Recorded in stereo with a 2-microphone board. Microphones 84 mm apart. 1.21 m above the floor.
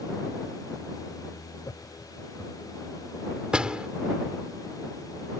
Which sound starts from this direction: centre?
A door slam, at 3.5 s.